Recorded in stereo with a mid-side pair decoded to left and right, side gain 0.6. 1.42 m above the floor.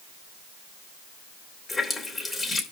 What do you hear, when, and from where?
1.7 s a running tap: 20° left, 3 m